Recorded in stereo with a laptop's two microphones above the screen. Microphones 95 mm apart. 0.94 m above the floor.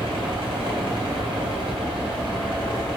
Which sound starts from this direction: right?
A fan, at 0.0 s.